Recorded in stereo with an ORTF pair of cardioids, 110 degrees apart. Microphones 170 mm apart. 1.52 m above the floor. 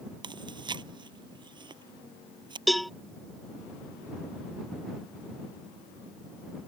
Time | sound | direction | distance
0.2 | chewing | 30° right | ?
2.7 | a cowbell | straight ahead | ?